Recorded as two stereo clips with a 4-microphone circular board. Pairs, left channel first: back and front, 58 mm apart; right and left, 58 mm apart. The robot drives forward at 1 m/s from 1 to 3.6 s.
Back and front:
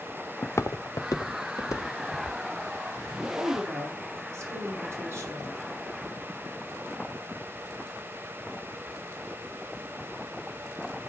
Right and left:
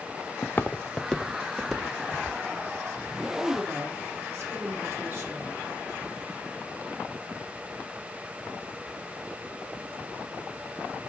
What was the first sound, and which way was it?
Footsteps, 135° right.